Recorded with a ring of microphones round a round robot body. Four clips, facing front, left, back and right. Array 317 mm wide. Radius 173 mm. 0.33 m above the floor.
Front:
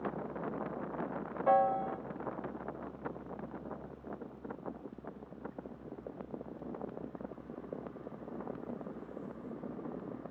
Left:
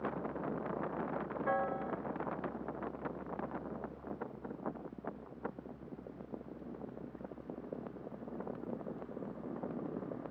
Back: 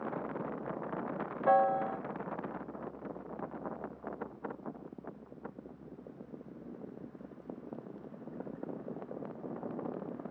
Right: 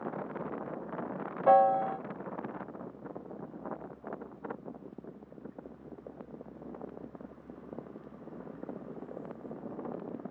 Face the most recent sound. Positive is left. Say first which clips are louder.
# right 14 dB, back 1 dB
turn(degrees=-95)